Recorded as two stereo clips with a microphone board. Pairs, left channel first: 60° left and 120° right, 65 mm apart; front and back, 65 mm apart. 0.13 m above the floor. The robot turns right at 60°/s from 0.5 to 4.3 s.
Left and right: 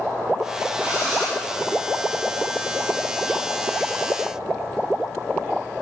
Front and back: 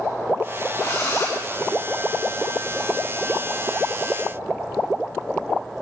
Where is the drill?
55° right, 7 m; by 1.4 s 20° right, 7 m.